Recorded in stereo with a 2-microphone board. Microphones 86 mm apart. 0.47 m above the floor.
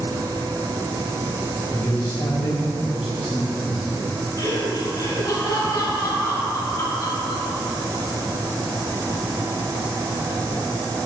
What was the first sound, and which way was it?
A man speaking, 50° left (ahead or behind).